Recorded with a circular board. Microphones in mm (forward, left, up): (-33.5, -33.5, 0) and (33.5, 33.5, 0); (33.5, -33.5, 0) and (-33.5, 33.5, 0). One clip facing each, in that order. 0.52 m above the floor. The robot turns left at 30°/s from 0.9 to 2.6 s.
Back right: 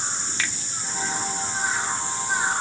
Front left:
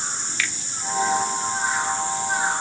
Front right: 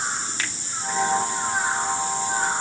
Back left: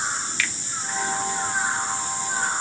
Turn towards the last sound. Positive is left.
turn(degrees=-140)